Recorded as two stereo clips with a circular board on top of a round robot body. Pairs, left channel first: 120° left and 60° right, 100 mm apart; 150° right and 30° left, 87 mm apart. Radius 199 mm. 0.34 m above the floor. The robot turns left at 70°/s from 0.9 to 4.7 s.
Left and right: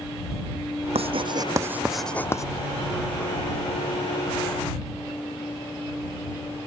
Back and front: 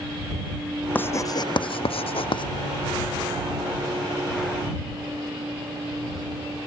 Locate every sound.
0.9 s writing: 80° right; by 2.5 s 175° left